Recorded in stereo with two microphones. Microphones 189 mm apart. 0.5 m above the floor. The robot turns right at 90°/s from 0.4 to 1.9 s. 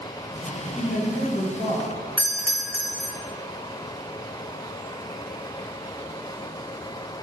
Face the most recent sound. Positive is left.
turn(degrees=10)  # may be behind; listen again after turning